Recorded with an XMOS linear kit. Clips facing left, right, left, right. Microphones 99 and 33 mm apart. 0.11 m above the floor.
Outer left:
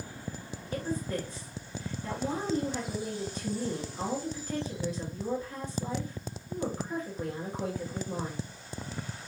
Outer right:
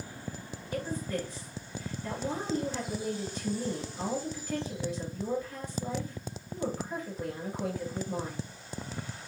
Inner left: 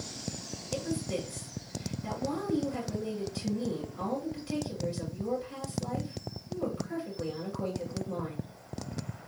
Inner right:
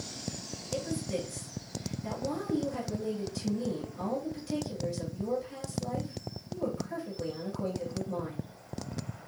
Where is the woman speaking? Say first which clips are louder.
Outer left 1 dB, even; 20° left (ahead or behind), 1.7 m.